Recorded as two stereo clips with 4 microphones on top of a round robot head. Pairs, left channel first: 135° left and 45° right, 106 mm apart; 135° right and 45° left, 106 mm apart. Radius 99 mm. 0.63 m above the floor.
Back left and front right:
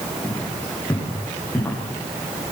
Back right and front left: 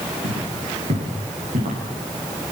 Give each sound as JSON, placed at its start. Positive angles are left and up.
{"t": 0.2, "sound": "footsteps", "azimuth_deg": 60, "distance_m": 9.5}